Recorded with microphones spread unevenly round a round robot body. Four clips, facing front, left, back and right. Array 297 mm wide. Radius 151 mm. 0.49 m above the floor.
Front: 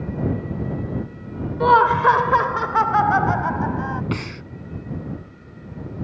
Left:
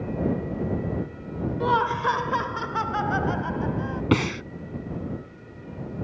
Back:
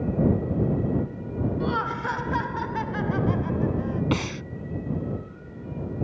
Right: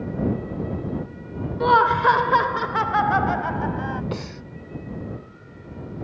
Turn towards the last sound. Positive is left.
turn(degrees=100)